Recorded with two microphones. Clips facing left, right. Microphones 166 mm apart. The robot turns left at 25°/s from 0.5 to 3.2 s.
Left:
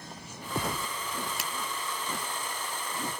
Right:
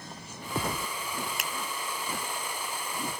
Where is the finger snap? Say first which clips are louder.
Even; 35° left (ahead or behind).